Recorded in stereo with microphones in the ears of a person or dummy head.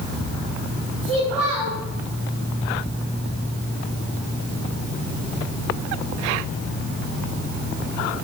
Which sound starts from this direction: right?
A child speaking, at 1.0 s.